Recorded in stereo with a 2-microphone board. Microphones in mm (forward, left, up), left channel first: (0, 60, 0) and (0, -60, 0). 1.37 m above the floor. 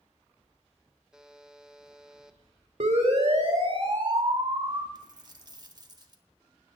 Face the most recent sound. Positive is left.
turn(degrees=-35)  # may be behind; listen again after turning